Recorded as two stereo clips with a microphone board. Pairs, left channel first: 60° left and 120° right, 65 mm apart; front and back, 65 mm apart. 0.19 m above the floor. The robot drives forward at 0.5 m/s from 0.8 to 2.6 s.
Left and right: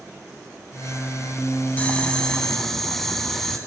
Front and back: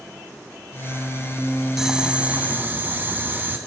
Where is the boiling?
105° left, 0.8 m; by 3.6 s 145° left, 1.0 m.